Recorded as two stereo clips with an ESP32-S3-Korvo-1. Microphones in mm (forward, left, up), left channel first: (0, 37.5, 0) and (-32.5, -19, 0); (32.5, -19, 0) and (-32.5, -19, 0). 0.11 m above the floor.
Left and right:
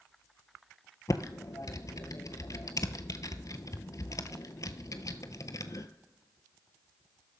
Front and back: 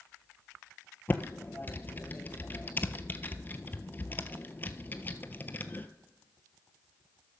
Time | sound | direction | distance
1.1 | typing on a keyboard | 50° left | 0.6 m